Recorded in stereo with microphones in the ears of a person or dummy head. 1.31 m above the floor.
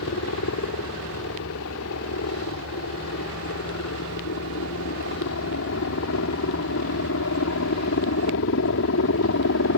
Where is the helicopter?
70° left (ahead or behind).